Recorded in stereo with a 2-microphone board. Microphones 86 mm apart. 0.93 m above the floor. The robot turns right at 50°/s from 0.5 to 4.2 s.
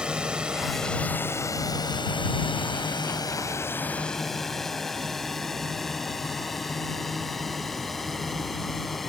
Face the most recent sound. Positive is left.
turn(degrees=0)  # may be behind; listen again after turning